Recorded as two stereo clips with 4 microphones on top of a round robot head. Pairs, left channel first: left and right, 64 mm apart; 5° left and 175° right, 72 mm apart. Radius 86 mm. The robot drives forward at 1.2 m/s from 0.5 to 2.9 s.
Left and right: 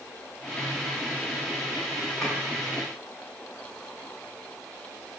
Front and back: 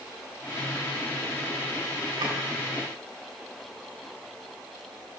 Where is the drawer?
175° left, 3.5 m.